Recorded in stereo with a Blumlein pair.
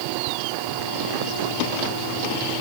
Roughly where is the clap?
I don't hear a clap.